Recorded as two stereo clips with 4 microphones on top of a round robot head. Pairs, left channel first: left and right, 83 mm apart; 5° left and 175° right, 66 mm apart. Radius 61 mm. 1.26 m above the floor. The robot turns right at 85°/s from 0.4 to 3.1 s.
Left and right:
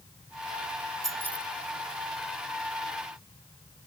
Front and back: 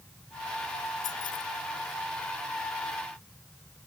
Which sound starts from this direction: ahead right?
Keys jangling, at 1.0 s.